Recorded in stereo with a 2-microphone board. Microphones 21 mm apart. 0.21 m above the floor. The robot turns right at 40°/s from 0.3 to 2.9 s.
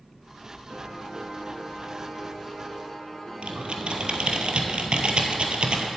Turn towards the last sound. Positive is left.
turn(degrees=-70)  # may be behind; listen again after turning